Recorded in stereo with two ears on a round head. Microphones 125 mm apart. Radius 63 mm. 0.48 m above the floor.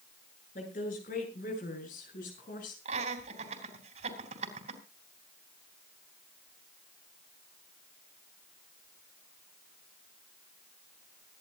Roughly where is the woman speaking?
Left.